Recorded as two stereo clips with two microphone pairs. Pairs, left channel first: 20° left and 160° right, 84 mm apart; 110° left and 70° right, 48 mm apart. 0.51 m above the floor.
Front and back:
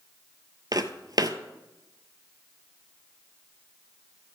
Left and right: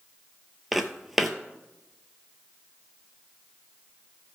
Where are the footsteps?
150° right, 0.7 m.